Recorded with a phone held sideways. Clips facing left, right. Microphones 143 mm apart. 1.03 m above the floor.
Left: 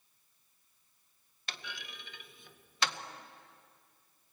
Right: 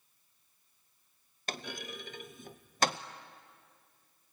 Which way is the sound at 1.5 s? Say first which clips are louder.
Right 7 dB; 45° right (ahead or behind).